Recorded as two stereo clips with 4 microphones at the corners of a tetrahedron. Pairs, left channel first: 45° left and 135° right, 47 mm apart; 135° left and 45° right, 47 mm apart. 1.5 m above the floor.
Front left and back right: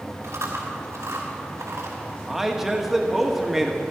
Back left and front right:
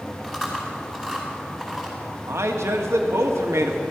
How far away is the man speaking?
About 1.6 m.